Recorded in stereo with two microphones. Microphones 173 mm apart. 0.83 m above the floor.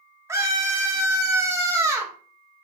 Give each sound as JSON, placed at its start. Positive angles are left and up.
{"t": 0.3, "sound": "a scream", "side_deg": -15, "distance_m": 0.9}